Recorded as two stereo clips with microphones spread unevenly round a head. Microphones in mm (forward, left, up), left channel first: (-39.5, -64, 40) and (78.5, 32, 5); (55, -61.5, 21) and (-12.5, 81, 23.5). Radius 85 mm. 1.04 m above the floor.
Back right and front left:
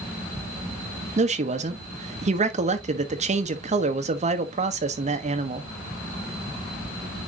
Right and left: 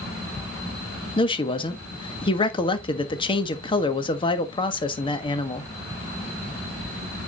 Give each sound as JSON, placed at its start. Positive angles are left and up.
{"t": 1.2, "sound": "a man speaking", "azimuth_deg": -5, "distance_m": 1.5}